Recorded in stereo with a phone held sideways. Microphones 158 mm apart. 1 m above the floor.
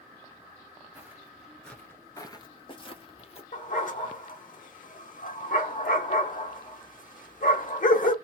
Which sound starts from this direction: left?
A dog barking, at 3.5 s.